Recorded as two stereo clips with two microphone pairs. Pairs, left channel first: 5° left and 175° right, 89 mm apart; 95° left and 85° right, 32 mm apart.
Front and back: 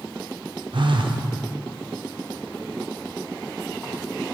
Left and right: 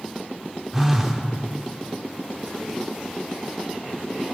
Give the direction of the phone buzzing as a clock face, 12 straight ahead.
5 o'clock.